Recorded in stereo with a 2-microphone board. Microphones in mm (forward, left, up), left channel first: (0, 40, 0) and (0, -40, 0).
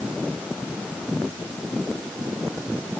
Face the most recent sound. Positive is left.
No sound to turn to.